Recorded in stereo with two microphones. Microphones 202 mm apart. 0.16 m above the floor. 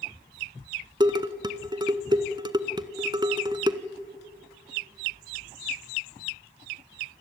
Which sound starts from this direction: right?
Dishes clattering, at 1.0 s.